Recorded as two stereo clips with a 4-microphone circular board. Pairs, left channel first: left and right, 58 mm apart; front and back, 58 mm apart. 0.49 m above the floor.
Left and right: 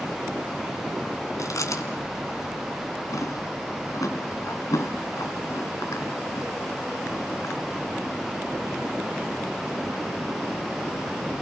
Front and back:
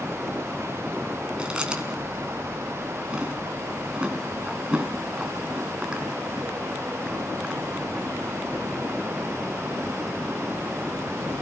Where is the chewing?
105° left, 3 m.